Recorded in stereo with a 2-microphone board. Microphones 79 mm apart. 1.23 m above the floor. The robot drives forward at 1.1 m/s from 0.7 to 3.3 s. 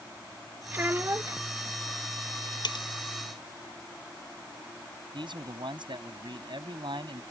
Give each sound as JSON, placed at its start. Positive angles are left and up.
{"t": 0.7, "sound": "a child speaking", "side_deg": -25}
{"t": 2.6, "sound": "cutlery clinking", "side_deg": 65}
{"t": 5.1, "sound": "a man speaking", "side_deg": -75}